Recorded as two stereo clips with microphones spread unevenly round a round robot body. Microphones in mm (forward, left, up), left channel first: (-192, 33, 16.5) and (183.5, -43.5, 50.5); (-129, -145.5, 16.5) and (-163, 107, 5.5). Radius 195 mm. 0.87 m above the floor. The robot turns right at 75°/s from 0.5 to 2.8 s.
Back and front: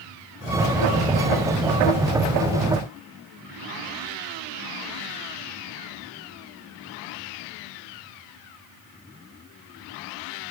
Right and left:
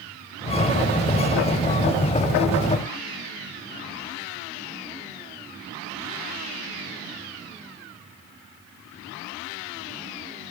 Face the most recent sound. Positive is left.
No sound to turn to.